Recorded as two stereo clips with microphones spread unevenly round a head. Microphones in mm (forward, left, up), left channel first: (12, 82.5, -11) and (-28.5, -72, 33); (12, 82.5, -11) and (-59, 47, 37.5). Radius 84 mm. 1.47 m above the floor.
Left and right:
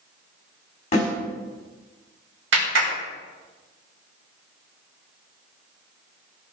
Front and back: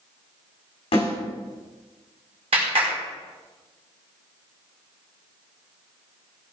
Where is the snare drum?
20° left, 6.5 m.